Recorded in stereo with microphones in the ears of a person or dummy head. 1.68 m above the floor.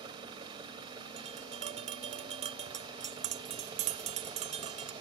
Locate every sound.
0.0 s an engine running: 25° right (ahead or behind)
1.2 s tapping: 35° right (ahead or behind)